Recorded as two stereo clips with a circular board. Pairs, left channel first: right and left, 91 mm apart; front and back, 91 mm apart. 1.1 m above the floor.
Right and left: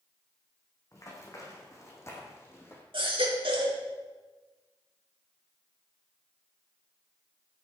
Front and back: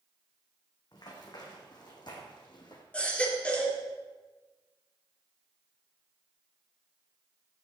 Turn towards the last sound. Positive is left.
turn(degrees=75)